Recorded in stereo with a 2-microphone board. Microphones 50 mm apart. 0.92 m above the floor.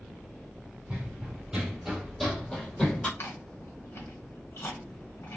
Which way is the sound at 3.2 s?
60° left (ahead or behind).